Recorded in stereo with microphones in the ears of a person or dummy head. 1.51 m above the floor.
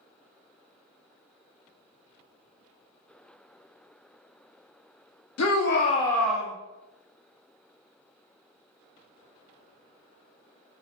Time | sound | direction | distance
5.4 | a shout | 75° left (ahead or behind) | 0.7 m